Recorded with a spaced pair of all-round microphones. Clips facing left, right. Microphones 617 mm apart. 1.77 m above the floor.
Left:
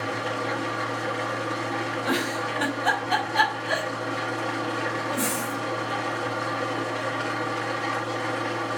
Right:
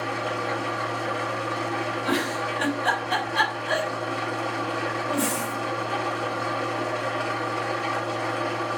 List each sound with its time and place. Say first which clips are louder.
0.0 s an engine running: even; 45° left (ahead or behind), 1.8 m
2.0 s a giggle: right 1 dB; 50° left (ahead or behind), 2.5 m